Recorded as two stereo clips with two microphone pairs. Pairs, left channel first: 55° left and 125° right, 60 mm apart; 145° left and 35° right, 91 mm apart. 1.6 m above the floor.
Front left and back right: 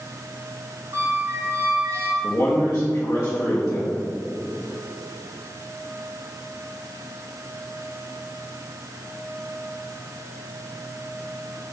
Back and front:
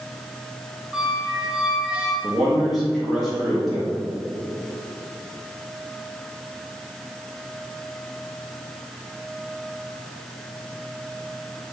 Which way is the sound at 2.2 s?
55° left.